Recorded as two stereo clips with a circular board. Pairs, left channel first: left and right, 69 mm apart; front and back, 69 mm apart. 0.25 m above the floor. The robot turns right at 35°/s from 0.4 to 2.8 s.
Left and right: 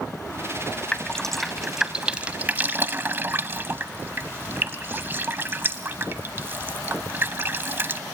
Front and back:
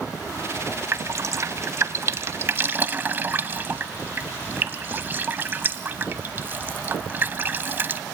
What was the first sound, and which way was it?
Dripping, 160° left.